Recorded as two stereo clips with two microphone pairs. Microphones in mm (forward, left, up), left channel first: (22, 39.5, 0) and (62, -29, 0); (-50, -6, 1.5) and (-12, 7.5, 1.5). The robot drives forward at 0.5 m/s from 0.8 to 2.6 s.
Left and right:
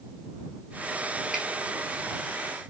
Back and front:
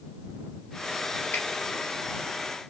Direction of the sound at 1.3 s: 140° right.